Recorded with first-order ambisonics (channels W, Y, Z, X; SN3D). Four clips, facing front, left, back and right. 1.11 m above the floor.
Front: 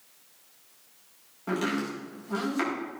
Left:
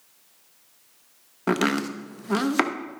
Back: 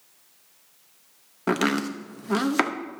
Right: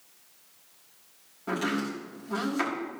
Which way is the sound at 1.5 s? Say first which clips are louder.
Left 6 dB, back 5 dB; 130° left.